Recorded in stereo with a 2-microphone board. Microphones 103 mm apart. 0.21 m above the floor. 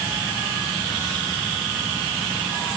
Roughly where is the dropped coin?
I don't hear a dropped coin.